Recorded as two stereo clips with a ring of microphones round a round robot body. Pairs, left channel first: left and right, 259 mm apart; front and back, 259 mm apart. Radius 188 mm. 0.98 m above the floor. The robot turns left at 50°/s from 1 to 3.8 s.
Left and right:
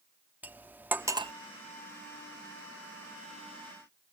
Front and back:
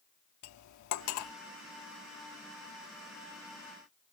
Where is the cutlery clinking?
5° right; by 1.3 s 25° right.